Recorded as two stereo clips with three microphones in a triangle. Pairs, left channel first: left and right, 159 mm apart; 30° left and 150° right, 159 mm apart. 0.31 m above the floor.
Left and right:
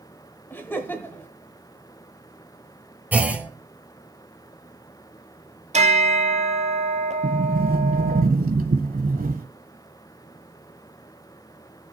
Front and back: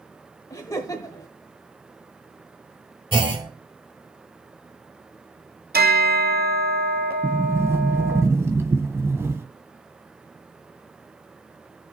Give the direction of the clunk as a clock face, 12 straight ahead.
5 o'clock.